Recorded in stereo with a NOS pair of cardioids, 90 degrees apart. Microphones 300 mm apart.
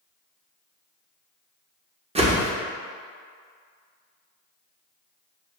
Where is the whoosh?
20° right, 0.7 m.